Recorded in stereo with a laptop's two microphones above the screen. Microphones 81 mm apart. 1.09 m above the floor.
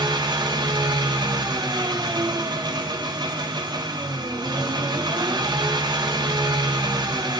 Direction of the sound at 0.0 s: 65° right (ahead or behind).